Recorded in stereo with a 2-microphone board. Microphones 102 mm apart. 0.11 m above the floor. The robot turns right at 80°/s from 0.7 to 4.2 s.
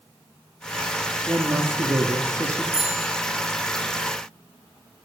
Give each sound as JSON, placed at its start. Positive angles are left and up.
{"t": 1.3, "sound": "a man speaking", "azimuth_deg": -140, "distance_m": 1.4}
{"t": 2.7, "sound": "a bicycle bell", "azimuth_deg": -105, "distance_m": 5.0}